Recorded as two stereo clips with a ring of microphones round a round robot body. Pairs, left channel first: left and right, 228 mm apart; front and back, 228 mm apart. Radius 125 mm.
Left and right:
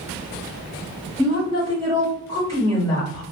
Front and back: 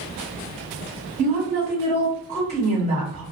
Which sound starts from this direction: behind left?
A woman speaking, at 1.2 s.